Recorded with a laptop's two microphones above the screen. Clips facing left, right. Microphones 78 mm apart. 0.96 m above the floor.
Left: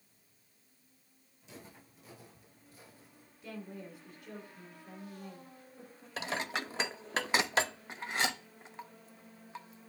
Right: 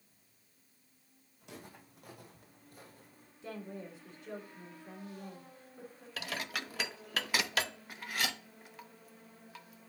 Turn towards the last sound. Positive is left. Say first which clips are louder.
# left 4 dB
turn(degrees=25)  # may be behind; listen again after turning